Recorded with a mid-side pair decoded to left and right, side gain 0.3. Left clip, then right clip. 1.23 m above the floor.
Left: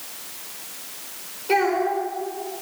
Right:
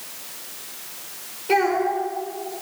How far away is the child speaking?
About 4 m.